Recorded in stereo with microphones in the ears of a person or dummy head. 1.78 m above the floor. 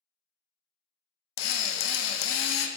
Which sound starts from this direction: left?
A drill, at 1.4 s.